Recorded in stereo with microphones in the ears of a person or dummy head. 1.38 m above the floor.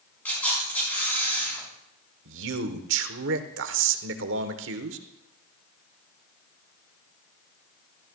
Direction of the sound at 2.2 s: 70° right (ahead or behind).